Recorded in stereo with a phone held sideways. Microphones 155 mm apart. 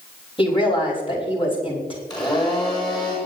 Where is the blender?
25° left (ahead or behind), 7.5 m.